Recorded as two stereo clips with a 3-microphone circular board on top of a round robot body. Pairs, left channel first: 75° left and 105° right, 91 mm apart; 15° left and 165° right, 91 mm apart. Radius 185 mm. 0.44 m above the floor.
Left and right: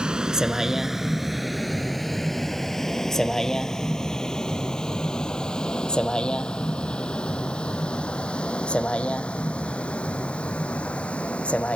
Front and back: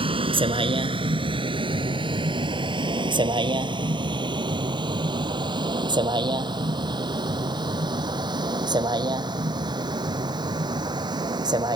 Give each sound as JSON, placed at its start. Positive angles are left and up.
{"t": 0.0, "sound": "a vehicle", "azimuth_deg": 175}